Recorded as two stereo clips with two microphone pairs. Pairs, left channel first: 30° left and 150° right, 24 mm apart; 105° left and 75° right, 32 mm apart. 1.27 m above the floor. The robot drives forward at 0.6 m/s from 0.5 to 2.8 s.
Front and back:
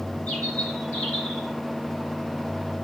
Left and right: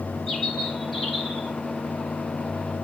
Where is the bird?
15° left, 3.5 m; by 1.5 s 20° left, 3 m.